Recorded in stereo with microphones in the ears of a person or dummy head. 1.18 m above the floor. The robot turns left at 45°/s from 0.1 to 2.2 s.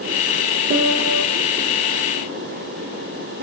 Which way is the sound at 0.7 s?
60° right (ahead or behind).